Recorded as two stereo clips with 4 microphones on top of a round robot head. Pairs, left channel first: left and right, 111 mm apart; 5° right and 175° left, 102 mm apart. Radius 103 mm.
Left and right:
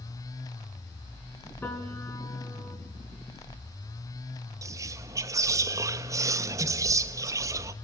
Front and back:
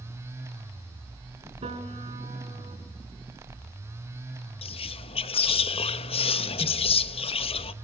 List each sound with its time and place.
1.6 s a piano: 160° left, 4.5 m
4.6 s whispering: 30° right, 1.0 m